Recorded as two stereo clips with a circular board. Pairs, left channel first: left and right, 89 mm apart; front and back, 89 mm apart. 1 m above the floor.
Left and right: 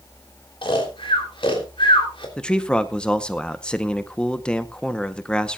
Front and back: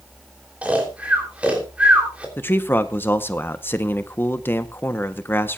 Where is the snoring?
105° left, 3 m.